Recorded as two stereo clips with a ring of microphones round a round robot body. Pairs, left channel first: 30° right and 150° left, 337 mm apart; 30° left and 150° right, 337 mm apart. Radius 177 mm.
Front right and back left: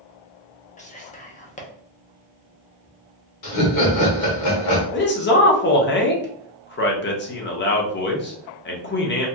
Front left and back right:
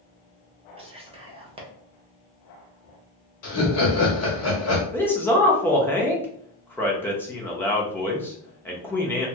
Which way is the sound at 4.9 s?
50° right.